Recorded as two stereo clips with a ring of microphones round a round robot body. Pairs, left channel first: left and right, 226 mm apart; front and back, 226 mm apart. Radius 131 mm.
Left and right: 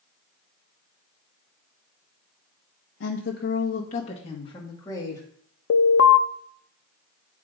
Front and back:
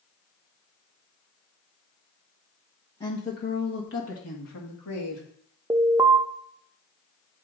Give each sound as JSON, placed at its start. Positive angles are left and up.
{"t": 3.0, "sound": "a woman speaking", "azimuth_deg": 70, "distance_m": 1.1}
{"t": 5.7, "sound": "an alarm", "azimuth_deg": 105, "distance_m": 0.6}